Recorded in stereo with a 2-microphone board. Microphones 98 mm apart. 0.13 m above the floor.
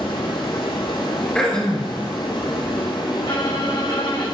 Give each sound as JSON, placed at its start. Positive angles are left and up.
{"t": 0.0, "sound": "running water", "side_deg": 50, "distance_m": 1.7}
{"t": 1.4, "sound": "throat clearing", "side_deg": 10, "distance_m": 1.8}
{"t": 3.2, "sound": "a violin", "side_deg": 55, "distance_m": 4.0}